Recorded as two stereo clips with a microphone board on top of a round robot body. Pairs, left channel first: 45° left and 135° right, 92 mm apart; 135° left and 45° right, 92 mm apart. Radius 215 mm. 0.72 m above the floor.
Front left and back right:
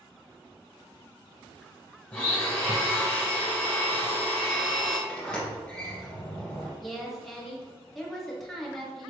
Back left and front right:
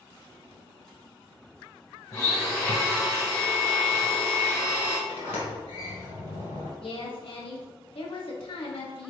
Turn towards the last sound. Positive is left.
turn(degrees=135)